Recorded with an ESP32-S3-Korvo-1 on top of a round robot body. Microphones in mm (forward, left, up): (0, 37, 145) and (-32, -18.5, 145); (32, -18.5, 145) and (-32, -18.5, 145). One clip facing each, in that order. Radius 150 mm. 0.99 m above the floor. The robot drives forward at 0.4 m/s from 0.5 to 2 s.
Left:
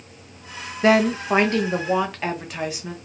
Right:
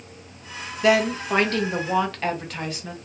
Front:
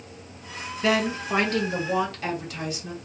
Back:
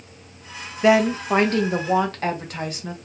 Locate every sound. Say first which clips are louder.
0.8 s a woman speaking: left 2 dB, back 7 dB; 110° left, 0.7 m; by 3.0 s 140° left, 1.0 m